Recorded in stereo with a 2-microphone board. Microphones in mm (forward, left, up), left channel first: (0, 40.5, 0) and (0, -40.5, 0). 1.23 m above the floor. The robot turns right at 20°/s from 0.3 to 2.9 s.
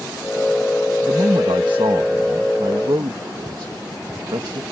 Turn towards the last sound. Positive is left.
turn(degrees=-70)